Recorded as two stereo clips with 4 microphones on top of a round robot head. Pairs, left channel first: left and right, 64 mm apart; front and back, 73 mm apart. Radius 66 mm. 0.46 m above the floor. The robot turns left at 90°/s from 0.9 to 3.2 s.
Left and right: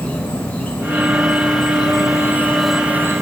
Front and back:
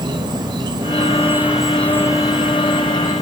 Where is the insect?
160° left, 0.8 m; by 3.2 s 45° right, 0.8 m.